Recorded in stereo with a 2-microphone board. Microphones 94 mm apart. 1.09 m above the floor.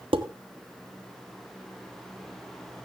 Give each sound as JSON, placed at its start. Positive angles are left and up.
{"t": 0.1, "sound": "dishes clattering", "side_deg": -70, "distance_m": 1.3}